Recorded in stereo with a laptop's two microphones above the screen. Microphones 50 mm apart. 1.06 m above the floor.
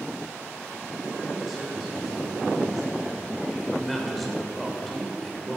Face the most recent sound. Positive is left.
turn(degrees=0)  # may be behind; listen again after turning